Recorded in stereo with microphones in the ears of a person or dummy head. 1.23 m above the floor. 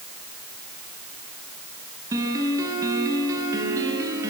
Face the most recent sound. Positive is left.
turn(degrees=-20)  # may be behind; listen again after turning